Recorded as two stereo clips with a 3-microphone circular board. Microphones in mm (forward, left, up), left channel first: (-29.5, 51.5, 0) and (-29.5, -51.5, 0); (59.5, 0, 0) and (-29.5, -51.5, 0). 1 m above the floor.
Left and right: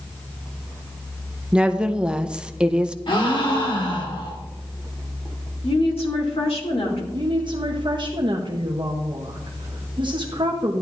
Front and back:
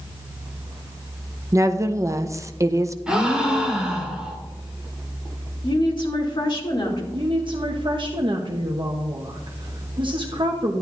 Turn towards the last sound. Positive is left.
turn(degrees=-120)